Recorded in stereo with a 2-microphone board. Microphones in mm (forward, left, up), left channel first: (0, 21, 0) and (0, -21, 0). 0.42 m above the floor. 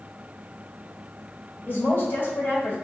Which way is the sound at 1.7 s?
50° left (ahead or behind).